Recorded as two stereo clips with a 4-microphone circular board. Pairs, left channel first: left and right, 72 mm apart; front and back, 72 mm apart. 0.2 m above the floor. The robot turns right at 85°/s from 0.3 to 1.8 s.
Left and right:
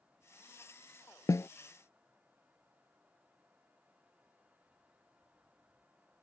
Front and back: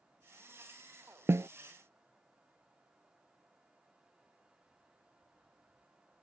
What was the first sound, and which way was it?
A snare drum, 125° left.